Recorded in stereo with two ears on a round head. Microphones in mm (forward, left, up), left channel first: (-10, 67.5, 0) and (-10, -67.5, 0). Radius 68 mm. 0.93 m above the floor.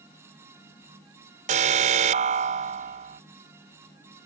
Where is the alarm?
55° right (ahead or behind).